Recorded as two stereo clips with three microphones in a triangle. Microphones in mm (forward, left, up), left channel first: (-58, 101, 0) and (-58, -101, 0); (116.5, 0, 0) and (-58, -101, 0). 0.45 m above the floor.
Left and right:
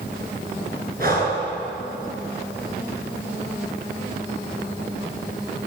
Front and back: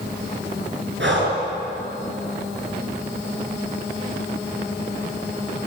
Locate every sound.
1.0 s breathing: 130° right, 7 m